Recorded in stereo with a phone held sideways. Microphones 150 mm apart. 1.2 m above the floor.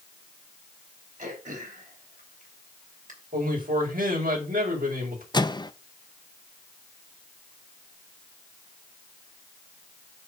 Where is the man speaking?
70° right (ahead or behind), 5 m.